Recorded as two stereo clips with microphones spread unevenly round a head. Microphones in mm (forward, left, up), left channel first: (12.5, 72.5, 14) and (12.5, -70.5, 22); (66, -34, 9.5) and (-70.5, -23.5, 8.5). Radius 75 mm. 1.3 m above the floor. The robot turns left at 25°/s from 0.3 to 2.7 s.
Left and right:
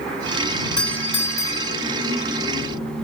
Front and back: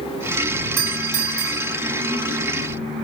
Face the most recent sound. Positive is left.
turn(degrees=125)